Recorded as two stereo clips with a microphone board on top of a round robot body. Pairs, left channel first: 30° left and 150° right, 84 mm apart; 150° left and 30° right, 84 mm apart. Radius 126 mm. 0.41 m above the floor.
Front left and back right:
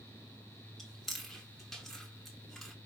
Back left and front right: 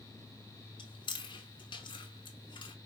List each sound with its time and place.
0.8 s chewing: 120° left, 0.9 m